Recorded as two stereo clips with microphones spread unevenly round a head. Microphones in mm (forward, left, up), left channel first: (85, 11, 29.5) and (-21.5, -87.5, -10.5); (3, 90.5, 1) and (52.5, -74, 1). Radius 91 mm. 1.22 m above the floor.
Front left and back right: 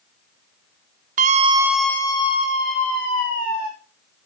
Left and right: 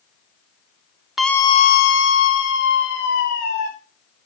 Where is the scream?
160° right, 0.8 m; by 3.7 s 85° left, 2.5 m.